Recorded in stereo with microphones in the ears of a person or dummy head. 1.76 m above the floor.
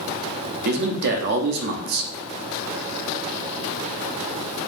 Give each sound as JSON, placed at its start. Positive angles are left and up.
{"t": 0.7, "sound": "a man speaking", "side_deg": -60, "distance_m": 0.6}